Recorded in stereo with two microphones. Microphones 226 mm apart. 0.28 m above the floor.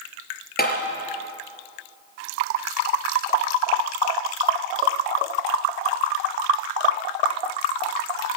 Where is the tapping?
45° left (ahead or behind), 4 m.